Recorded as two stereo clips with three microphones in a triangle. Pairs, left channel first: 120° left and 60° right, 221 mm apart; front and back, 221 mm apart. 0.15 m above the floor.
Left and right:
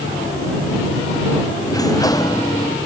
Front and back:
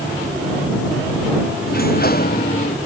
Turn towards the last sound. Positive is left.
turn(degrees=45)